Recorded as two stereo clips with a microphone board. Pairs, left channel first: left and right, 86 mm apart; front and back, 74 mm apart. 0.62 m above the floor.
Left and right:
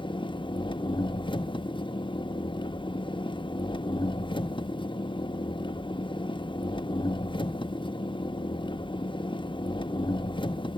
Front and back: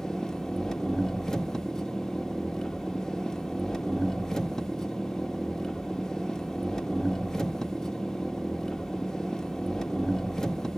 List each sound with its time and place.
0.0 s an engine running: 85° left, 0.7 m